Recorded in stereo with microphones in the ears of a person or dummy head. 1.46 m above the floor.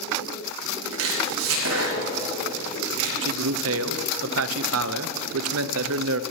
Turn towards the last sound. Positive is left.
turn(degrees=-65)  # may be behind; listen again after turning